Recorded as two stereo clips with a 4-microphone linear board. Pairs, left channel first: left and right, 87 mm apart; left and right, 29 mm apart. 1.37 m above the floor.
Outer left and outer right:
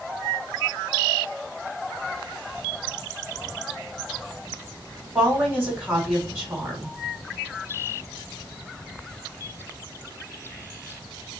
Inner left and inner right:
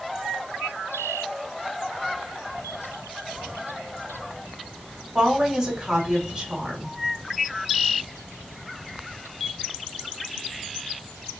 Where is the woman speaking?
25° right (ahead or behind), 2.5 m.